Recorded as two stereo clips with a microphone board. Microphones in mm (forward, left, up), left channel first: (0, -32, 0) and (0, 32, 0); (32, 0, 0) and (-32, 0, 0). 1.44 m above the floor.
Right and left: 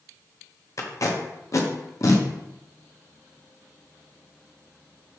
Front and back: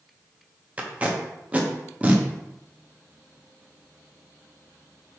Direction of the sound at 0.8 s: 115° right.